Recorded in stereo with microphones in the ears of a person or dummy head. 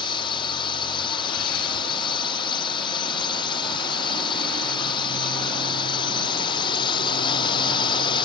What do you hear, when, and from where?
0.0 s a drone: 25° left (ahead or behind)